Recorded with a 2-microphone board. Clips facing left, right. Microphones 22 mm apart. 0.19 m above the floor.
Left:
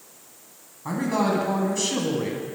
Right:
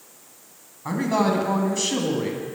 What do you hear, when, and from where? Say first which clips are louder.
0.8 s a man speaking: right 2 dB; 25° right (ahead or behind), 1.3 m; by 2.4 s 5° right (ahead or behind), 1.4 m